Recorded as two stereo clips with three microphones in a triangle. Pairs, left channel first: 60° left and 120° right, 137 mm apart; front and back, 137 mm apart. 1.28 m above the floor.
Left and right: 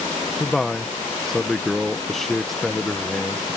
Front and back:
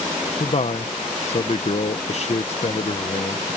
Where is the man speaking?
30° right.